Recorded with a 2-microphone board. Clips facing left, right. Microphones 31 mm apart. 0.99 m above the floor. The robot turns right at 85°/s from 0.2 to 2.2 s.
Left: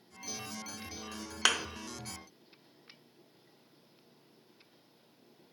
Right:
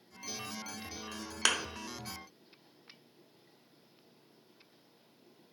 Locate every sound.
1.4 s a thud: 10° left (ahead or behind), 0.6 m; by 1.6 s 15° left (ahead or behind), 0.6 m